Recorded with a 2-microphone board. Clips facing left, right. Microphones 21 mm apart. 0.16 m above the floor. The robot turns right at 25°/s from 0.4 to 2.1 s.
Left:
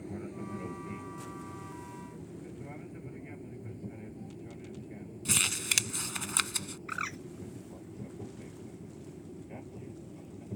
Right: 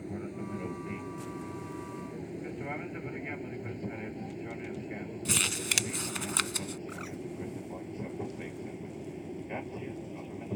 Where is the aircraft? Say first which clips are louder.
Right 2 dB; 10° right (ahead or behind); by 10.6 s 45° right (ahead or behind).